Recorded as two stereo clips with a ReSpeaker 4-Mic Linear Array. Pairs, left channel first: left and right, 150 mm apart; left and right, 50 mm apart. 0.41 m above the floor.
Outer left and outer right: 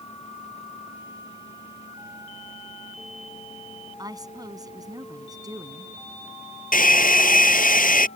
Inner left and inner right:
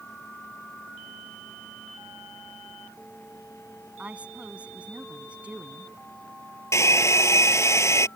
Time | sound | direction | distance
4.0 | a woman speaking | 25° right (ahead or behind) | ?
6.7 | a hair dryer | 70° left (ahead or behind) | ?